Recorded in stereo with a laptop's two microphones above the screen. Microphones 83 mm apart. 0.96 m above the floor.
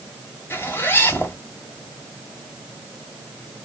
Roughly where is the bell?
No bell in this recording.